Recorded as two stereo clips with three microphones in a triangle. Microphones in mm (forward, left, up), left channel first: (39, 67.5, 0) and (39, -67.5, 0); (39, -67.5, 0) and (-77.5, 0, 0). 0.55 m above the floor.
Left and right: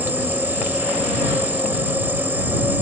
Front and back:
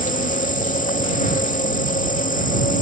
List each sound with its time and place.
0.0 s an insect: 15° right